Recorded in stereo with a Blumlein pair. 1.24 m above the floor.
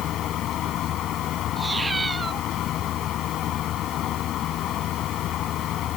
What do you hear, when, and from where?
0.0 s a fan: 30° left
1.6 s a cat meowing: 10° right